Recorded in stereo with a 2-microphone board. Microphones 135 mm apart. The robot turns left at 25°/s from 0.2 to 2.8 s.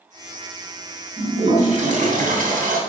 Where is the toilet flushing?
50° right, 3 m; by 2.8 s 95° right, 3 m.